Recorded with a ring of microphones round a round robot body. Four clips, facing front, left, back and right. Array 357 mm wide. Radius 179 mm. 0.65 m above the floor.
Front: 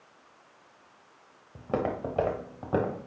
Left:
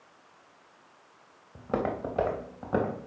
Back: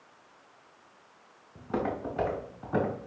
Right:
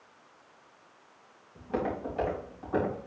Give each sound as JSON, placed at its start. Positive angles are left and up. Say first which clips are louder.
{"t": 1.6, "sound": "footsteps", "louder": "left 2 dB, front 2 dB", "azimuth_deg": 45, "distance_m": 3.0}